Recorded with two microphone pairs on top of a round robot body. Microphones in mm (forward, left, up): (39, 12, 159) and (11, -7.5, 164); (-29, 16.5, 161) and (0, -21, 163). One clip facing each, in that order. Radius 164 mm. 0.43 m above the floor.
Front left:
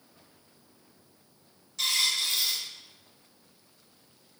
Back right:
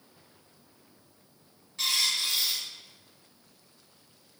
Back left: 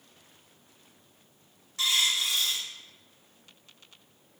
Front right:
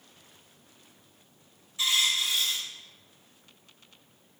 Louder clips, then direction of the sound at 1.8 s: Front left 1 dB, even; 150° left.